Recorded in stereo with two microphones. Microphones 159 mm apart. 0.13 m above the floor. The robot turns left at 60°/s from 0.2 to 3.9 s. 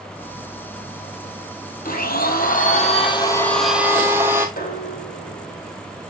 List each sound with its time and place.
1.9 s a blender: 110° left, 1.5 m; by 4.5 s 15° right, 1.5 m
4.6 s dishes clattering: 65° left (ahead or behind), 2.5 m